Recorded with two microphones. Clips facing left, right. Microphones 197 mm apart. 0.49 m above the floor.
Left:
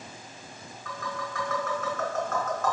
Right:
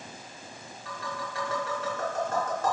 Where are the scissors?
No scissors in this recording.